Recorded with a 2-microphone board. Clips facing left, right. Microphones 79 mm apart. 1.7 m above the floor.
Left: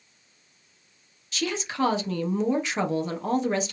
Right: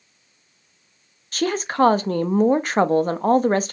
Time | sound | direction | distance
1.3 | a woman speaking | 50° right (ahead or behind) | 0.7 m